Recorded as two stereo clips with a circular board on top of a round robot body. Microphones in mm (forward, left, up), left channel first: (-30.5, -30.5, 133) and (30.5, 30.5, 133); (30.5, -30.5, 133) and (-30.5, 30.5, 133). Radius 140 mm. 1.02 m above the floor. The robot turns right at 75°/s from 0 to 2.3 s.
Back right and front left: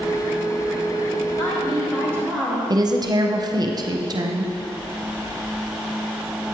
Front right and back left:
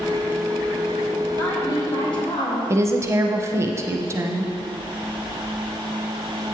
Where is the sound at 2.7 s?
80° left, 0.7 m.